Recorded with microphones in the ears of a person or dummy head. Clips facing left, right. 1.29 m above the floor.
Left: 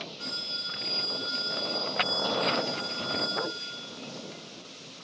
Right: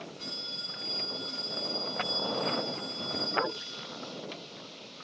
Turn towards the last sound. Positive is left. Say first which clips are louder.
# left 2 dB
turn(degrees=15)  # may be behind; listen again after turning